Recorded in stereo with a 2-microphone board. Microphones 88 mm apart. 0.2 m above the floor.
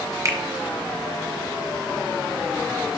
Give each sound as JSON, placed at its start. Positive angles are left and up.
{"t": 0.2, "sound": "a finger snap", "side_deg": -35, "distance_m": 1.5}